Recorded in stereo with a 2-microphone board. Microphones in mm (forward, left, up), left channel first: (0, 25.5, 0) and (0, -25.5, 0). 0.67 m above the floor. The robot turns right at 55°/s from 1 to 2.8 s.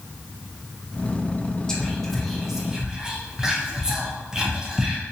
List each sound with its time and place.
1.7 s whispering: 15° left (ahead or behind), 0.6 m; by 5.0 s 15° right (ahead or behind), 0.6 m